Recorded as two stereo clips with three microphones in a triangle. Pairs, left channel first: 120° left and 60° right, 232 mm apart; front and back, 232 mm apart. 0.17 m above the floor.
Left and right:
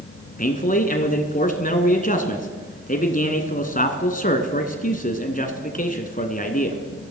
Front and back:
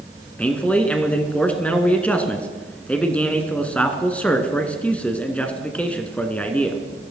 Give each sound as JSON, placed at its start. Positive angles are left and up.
{"t": 0.4, "sound": "a man speaking", "azimuth_deg": 80, "distance_m": 1.9}